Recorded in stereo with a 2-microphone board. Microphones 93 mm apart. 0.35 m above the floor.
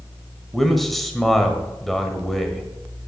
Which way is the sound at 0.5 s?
Centre (ahead or behind).